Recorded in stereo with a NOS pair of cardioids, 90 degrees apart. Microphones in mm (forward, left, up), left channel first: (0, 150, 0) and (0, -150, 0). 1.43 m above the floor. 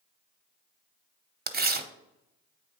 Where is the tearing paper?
30° right, 0.8 m.